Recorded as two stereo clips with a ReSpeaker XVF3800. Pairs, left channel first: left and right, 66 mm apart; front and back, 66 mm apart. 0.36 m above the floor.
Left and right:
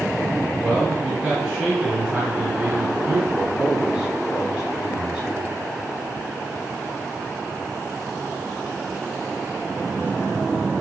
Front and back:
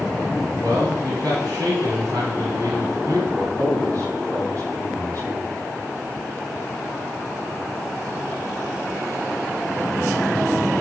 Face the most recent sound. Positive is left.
turn(degrees=-165)